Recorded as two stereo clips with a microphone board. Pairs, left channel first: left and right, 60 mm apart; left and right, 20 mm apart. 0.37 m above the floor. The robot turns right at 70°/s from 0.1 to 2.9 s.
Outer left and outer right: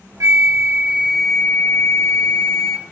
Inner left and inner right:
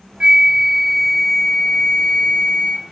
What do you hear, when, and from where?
0.2 s a flute: 70° right, 0.7 m; by 2.9 s 120° left, 0.7 m